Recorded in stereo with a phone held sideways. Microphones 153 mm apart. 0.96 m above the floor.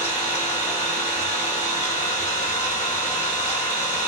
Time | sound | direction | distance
0.0 | an engine running | 45° left (ahead or behind) | 0.7 m